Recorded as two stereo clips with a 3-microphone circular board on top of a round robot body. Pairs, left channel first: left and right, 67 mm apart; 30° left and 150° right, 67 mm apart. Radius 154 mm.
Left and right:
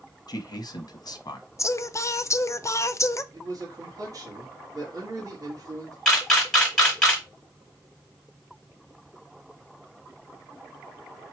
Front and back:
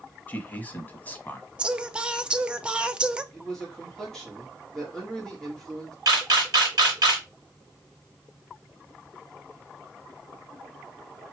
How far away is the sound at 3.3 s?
About 1.8 m.